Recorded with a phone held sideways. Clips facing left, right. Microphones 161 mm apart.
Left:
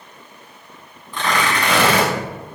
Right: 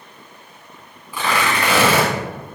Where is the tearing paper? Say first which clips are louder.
Even; 10° right (ahead or behind), 6 m.